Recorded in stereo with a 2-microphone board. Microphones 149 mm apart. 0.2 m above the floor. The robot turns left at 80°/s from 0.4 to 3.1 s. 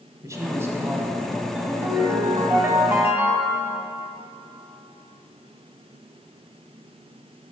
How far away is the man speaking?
About 1.0 m.